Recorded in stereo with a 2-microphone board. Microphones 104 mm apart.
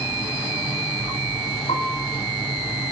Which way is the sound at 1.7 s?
65° left (ahead or behind).